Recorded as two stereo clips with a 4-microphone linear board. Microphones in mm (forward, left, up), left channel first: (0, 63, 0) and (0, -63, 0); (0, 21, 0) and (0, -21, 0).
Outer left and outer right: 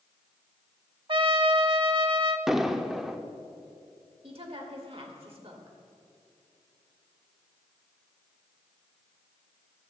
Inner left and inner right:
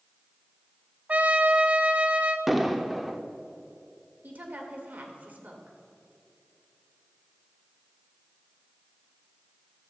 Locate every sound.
1.1 s a trumpet: 45° right (ahead or behind), 0.5 m
2.5 s an explosion: 5° right (ahead or behind), 0.6 m
4.2 s a woman speaking: 50° right (ahead or behind), 1.7 m